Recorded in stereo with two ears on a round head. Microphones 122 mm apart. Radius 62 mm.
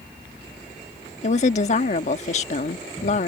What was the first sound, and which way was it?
A woman speaking, 55° left (ahead or behind).